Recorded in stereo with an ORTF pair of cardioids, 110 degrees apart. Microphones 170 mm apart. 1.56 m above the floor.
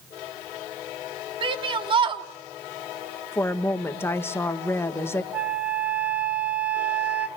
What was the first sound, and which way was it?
A shout, 30° right.